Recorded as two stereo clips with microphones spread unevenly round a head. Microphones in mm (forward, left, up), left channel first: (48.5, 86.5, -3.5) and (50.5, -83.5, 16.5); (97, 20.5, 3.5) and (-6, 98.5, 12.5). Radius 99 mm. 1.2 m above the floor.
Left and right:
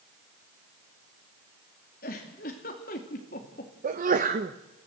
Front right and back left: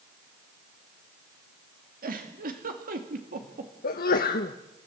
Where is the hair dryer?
I don't hear a hair dryer.